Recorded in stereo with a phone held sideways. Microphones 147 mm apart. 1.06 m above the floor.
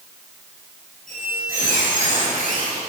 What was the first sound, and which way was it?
A squeak, 70° left (ahead or behind).